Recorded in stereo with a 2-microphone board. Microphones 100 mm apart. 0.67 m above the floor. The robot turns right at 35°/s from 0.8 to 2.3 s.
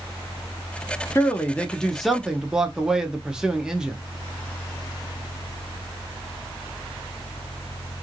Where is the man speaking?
150° left, 0.7 m; by 4.0 s 170° right, 0.7 m.